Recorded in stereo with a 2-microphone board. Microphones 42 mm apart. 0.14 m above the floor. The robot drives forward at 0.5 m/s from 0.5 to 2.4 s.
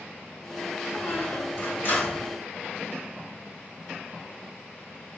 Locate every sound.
0.9 s a squeak: 55° left (ahead or behind), 2 m; by 2.3 s 45° left (ahead or behind), 2.5 m